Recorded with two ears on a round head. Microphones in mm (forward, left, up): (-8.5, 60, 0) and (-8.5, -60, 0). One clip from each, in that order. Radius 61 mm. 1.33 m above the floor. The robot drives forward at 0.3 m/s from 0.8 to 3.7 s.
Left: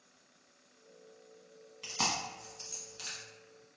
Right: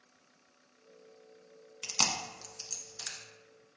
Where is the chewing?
60° right (ahead or behind), 0.8 m; by 3.2 s 40° right (ahead or behind), 1.0 m.